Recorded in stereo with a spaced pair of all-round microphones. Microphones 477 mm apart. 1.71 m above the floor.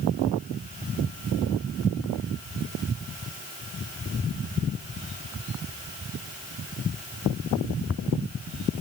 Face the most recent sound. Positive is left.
No sound to turn to.